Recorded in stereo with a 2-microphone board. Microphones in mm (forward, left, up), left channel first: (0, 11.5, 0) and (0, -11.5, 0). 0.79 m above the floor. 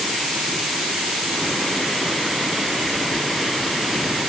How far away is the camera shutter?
I don't hear a camera shutter.